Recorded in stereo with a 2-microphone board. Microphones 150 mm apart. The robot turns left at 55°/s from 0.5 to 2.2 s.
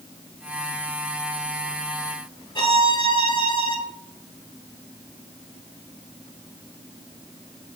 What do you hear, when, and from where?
2.5 s a violin: 30° left (ahead or behind), 1.1 m